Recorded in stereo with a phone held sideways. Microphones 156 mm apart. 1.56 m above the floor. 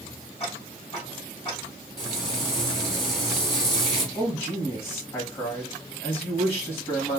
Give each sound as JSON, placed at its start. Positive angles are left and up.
{"t": 0.4, "sound": "ticking", "side_deg": 40, "distance_m": 1.9}
{"t": 2.0, "sound": "frying", "side_deg": 35, "distance_m": 1.6}
{"t": 4.2, "sound": "a man speaking", "side_deg": 35, "distance_m": 1.2}